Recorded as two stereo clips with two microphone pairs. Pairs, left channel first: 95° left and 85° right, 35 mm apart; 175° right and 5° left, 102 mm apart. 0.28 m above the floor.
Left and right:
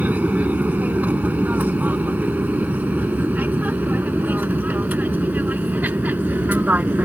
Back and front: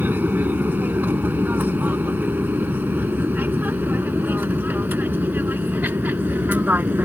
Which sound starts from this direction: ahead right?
An aircraft, at 0.0 s.